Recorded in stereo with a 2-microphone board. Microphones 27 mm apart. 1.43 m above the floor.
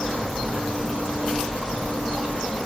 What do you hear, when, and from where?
0.0 s an insect: 40° left (ahead or behind), 1.0 m